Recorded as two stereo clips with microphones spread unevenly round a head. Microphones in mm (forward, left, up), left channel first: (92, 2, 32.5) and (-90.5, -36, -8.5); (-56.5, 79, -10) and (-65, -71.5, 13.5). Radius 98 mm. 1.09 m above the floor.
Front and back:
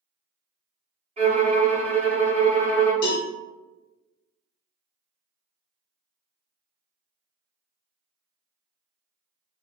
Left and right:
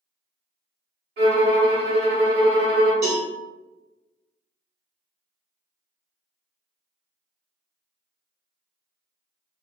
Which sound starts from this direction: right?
A violin, at 1.2 s.